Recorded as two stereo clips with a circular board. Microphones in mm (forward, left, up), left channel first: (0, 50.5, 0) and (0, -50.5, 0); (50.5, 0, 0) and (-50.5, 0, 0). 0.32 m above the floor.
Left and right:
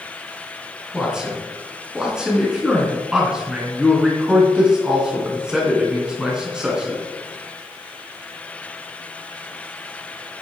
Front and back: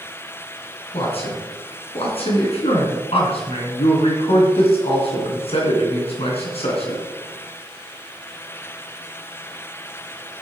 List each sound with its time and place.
0.9 s a man speaking: 5° right, 3.5 m